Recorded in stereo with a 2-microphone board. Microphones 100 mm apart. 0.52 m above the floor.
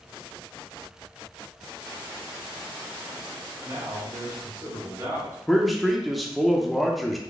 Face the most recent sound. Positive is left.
turn(degrees=0)  # may be behind; listen again after turning